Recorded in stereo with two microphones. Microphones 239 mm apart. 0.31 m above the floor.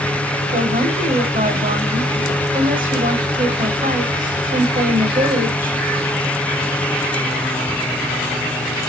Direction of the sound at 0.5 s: 35° right (ahead or behind).